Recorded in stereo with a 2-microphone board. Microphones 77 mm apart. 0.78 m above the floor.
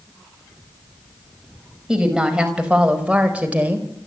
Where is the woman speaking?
10° right (ahead or behind), 5 m; by 3.9 s 20° right (ahead or behind), 4 m.